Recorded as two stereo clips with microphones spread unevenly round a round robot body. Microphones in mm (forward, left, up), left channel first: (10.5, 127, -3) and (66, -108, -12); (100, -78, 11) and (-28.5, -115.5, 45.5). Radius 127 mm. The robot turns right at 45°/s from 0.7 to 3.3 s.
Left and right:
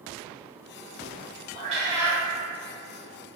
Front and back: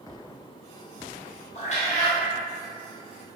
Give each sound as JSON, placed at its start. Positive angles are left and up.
{"t": 1.6, "sound": "a cat meowing", "azimuth_deg": -20, "distance_m": 0.8}